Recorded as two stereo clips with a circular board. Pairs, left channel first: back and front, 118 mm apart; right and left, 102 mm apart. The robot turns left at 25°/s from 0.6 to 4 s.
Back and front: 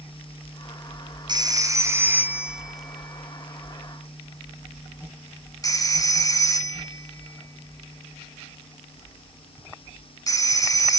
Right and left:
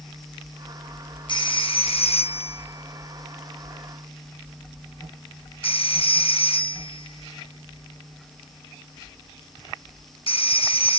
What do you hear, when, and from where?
1.3 s a phone ringing: 50° right, 1.2 m; by 11.0 s 120° right, 1.2 m